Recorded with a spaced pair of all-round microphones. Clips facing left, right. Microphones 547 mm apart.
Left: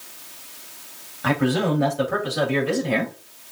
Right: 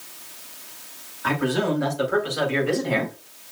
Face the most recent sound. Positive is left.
turn(degrees=45)  # may be behind; listen again after turning